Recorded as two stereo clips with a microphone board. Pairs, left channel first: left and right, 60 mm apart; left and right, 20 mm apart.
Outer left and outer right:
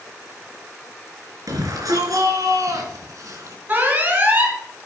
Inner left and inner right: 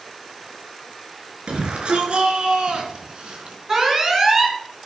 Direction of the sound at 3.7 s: 30° right (ahead or behind).